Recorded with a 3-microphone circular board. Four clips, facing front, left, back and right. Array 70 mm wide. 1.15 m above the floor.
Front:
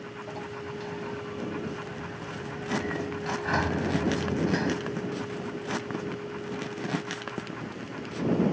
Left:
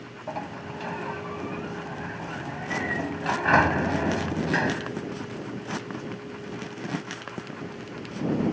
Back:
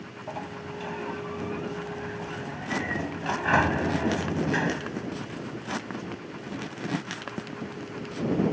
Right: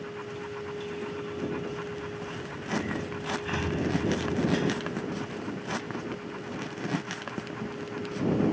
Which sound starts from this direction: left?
A sliding door, at 0.3 s.